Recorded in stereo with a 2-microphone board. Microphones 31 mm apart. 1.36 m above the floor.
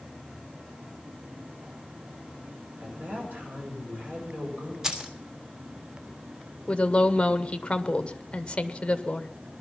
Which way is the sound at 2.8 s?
60° right (ahead or behind).